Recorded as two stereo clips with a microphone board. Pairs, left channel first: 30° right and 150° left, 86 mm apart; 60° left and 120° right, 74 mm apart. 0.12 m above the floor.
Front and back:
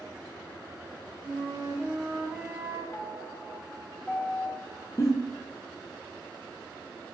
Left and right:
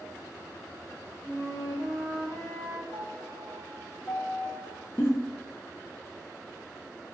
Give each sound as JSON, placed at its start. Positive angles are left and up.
{"t": 1.2, "sound": "a flute", "azimuth_deg": 105, "distance_m": 1.3}
{"t": 2.9, "sound": "a piano", "azimuth_deg": 40, "distance_m": 0.5}
{"t": 5.0, "sound": "a giggle", "azimuth_deg": 10, "distance_m": 0.7}